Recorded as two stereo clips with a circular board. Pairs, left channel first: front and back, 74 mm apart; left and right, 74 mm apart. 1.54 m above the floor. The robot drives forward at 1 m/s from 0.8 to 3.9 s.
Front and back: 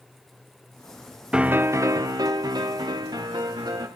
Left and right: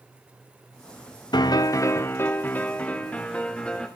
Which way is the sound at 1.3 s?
105° left.